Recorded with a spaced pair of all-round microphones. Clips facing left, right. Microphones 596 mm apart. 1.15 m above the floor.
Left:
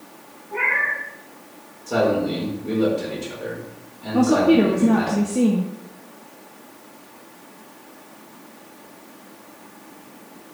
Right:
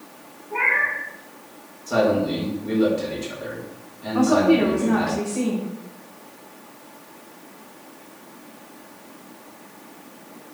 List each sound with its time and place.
0.5 s a cat meowing: 10° left (ahead or behind), 5 m
1.9 s a man speaking: 5° right (ahead or behind), 4 m
4.1 s a woman speaking: 55° left (ahead or behind), 1.1 m